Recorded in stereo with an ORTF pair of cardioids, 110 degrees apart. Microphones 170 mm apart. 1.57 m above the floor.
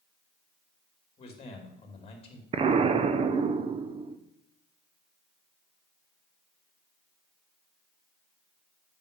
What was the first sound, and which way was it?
A man speaking, 35° left.